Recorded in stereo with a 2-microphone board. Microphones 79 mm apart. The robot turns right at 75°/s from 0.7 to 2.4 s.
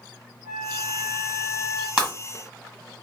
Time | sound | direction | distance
0.5 | a flute | 70° right | 1.7 m
2.0 | breaking glass | 15° right (ahead or behind) | 1.6 m